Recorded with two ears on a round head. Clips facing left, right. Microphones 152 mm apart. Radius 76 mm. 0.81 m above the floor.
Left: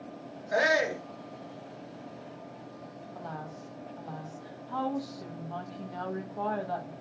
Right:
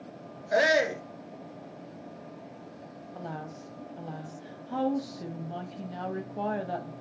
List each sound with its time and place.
0.5 s a shout: 30° right (ahead or behind), 1.0 m
3.1 s a woman speaking: 25° right (ahead or behind), 0.7 m